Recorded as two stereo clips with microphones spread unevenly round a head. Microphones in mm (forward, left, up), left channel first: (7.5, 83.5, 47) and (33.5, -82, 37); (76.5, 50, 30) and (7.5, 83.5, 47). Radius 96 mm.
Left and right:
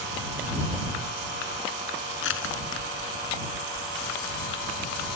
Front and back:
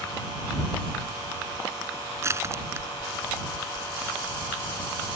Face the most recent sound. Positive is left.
turn(degrees=100)